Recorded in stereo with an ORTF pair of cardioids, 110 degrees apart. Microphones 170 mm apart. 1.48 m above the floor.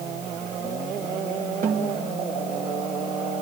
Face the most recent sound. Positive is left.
turn(degrees=-50)